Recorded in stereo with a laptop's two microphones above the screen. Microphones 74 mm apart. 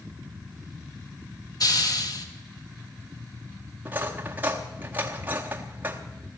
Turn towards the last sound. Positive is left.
turn(degrees=-25)  # may be behind; listen again after turning